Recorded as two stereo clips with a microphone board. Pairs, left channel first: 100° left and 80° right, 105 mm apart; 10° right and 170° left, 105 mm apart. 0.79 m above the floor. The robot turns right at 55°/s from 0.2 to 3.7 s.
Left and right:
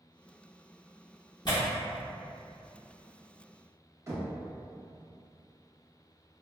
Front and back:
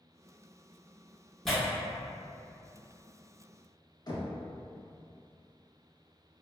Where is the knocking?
35° right, 0.6 m.